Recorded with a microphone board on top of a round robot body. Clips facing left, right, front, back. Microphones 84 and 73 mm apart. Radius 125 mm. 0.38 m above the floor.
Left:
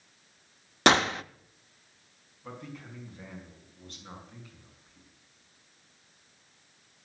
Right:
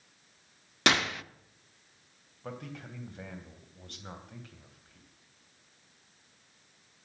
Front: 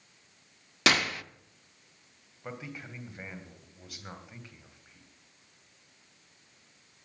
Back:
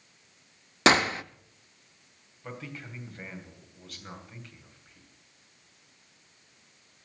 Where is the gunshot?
130° left, 0.6 m.